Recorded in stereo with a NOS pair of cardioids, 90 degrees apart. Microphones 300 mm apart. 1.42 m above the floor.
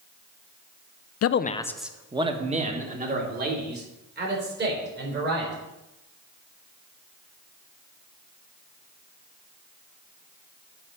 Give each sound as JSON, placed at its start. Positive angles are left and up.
{"t": 1.2, "sound": "a man speaking", "azimuth_deg": 55, "distance_m": 0.6}